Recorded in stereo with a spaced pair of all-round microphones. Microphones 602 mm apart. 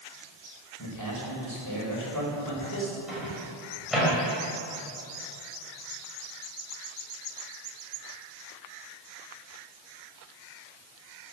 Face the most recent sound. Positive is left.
turn(degrees=0)  # may be behind; listen again after turning